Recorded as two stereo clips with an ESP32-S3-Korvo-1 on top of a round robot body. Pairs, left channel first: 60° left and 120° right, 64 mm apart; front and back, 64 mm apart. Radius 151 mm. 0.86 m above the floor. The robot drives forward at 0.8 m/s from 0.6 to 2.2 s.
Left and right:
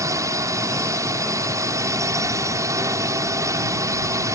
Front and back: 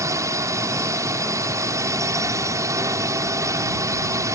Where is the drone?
150° right.